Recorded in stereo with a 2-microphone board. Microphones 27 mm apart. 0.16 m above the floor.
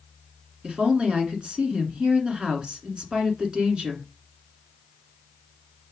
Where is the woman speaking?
35° right (ahead or behind), 1.7 m.